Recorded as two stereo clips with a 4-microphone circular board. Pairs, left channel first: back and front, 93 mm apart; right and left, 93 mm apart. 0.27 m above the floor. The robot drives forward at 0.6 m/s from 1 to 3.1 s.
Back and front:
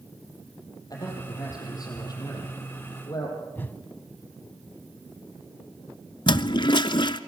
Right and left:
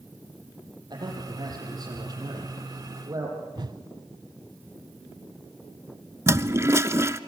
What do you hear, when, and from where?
0.9 s a man speaking: 130° left, 9 m; by 3.4 s 135° left, 9.5 m
3.5 s a whoosh: 115° left, 0.9 m
6.3 s a toilet flushing: 150° left, 0.7 m